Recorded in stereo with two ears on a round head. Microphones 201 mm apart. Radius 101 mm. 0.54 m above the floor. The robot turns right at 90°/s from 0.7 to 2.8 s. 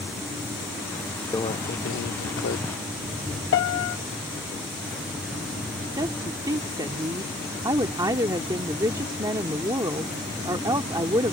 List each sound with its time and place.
1.3 s a microwave: 15° left; by 2.6 s 130° left
3.5 s a piano: 55° left (ahead or behind)
6.0 s a woman speaking: 15° right (ahead or behind)